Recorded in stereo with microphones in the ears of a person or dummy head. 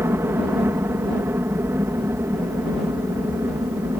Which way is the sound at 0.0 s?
15° right (ahead or behind).